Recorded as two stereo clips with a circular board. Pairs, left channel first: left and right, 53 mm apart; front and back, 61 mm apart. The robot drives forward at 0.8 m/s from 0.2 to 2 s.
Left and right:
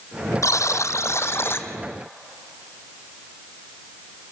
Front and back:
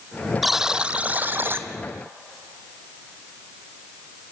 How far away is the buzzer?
About 1.2 m.